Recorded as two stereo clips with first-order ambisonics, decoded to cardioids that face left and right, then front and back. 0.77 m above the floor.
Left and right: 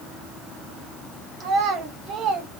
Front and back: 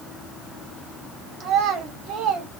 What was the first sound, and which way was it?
A child speaking, 140° right.